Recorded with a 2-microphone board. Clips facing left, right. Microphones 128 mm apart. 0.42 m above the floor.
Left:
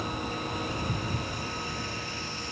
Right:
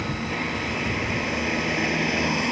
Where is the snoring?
No snoring in this recording.